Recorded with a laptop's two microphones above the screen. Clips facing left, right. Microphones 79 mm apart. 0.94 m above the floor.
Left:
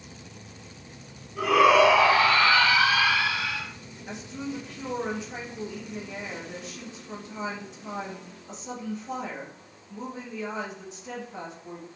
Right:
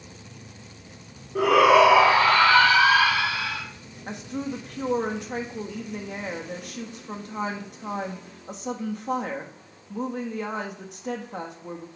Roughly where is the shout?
Right.